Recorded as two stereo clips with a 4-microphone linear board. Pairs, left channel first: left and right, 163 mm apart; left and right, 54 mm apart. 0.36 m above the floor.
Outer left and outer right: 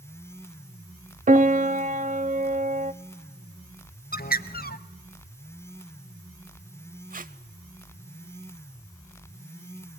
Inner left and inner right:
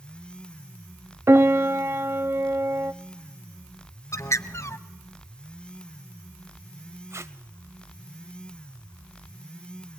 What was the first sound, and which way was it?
A piano, 55° right (ahead or behind).